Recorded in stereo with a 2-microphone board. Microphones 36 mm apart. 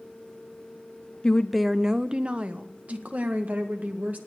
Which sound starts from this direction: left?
A woman speaking, at 1.2 s.